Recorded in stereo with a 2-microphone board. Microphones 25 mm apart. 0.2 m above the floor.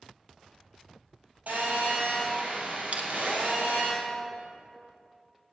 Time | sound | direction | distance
1.5 | a phone buzzing | 75° right (ahead or behind) | 3.5 m
2.9 | crushing | 60° right (ahead or behind) | 1.2 m